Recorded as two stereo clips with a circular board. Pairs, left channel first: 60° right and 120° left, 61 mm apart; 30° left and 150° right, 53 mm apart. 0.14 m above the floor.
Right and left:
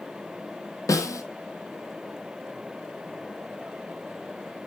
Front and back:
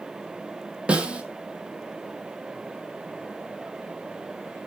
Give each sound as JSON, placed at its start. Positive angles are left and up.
{"t": 0.9, "sound": "a snare drum", "azimuth_deg": -80, "distance_m": 1.0}